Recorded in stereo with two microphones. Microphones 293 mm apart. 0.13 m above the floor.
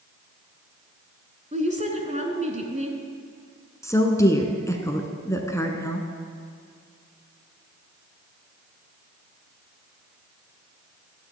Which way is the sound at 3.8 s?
10° left (ahead or behind).